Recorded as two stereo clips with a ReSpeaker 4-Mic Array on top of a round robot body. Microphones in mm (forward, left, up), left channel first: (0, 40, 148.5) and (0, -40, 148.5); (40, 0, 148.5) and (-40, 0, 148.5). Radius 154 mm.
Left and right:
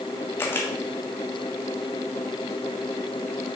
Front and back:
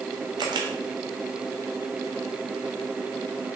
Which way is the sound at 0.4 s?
150° left.